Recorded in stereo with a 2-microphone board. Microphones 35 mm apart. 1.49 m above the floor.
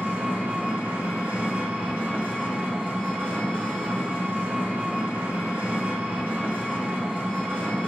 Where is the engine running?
65° right (ahead or behind), 0.9 m.